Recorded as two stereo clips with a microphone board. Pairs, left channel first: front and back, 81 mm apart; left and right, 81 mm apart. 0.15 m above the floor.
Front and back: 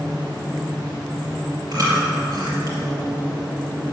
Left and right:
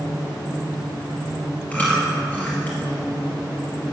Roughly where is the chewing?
Behind left.